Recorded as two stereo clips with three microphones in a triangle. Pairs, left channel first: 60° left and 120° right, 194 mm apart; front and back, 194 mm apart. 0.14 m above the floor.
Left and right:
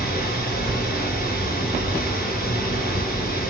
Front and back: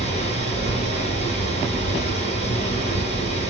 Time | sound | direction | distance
0.0 | running water | 45° left | 1.8 m